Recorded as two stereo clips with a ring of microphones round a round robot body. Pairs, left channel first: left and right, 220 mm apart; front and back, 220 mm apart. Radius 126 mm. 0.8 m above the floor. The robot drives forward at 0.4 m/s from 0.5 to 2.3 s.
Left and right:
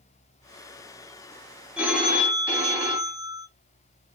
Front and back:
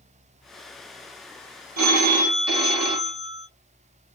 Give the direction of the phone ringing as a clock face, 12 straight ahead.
6 o'clock.